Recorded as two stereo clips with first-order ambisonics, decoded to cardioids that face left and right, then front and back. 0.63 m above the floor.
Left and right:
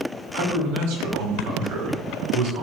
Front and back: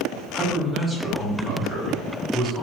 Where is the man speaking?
90° right, 1.7 m.